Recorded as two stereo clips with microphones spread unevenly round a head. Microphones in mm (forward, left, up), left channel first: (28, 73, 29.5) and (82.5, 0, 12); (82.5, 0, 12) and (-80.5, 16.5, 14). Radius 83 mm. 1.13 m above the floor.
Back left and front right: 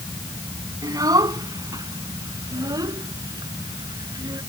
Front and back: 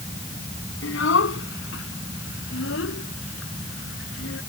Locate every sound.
0.8 s a child speaking: 5° right